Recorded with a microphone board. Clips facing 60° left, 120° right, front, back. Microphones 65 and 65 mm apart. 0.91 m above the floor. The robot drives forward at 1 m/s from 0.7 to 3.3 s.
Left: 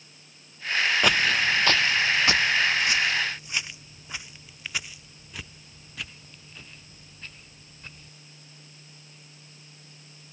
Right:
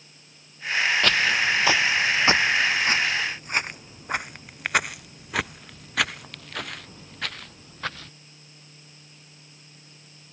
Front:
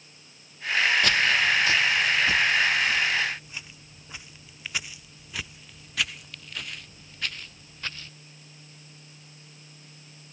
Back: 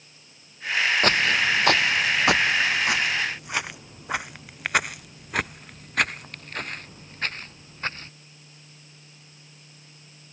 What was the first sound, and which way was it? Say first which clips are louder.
Footsteps: right 1 dB, back 1 dB; 135° left.